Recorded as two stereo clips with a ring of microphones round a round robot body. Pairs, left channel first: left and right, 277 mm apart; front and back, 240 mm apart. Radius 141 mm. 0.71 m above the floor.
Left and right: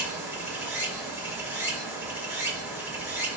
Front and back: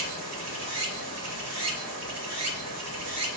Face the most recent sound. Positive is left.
turn(degrees=-175)